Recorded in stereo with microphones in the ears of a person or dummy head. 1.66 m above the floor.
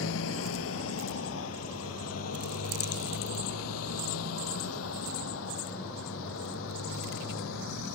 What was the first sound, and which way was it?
A motorcycle, 75° left (ahead or behind).